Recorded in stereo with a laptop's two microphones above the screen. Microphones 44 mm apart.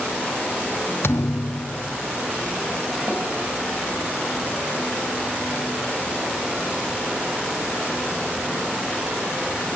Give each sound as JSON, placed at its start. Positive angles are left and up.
{"t": 1.0, "sound": "a thud", "side_deg": 65, "distance_m": 0.5}
{"t": 3.1, "sound": "a snare drum", "side_deg": -25, "distance_m": 3.5}